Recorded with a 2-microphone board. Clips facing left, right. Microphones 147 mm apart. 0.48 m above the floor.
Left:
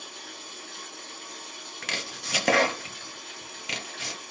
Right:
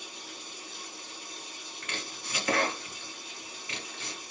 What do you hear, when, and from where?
0.0 s running water: 65° left (ahead or behind), 1.0 m
1.8 s chopping: 75° left (ahead or behind), 0.7 m